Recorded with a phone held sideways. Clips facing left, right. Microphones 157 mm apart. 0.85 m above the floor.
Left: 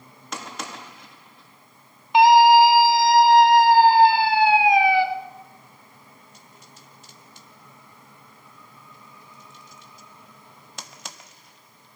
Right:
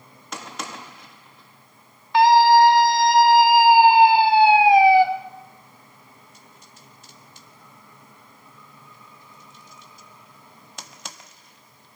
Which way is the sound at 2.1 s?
15° left (ahead or behind).